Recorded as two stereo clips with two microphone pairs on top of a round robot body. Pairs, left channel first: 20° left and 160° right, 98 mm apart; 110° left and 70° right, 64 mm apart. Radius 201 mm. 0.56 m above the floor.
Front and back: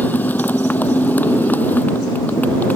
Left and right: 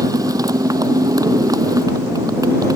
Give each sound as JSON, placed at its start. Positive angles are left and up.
{"t": 0.0, "sound": "a motorcycle", "azimuth_deg": -55}